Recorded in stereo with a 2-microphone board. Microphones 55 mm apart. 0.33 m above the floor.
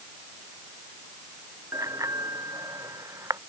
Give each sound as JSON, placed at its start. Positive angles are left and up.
{"t": 1.7, "sound": "a bicycle bell", "side_deg": -80}